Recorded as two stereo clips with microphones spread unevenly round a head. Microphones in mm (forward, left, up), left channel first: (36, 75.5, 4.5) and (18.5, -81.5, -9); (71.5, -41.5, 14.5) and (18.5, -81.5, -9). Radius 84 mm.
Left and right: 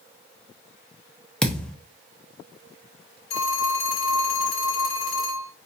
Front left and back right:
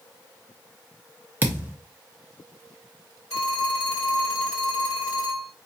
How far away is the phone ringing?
About 2.5 m.